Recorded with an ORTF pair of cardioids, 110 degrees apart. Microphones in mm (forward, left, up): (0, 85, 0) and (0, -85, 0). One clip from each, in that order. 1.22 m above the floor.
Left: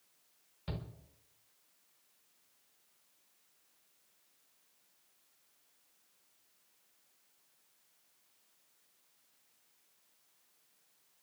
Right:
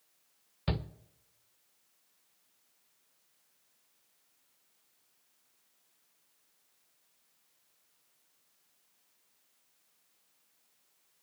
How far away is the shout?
About 0.9 m.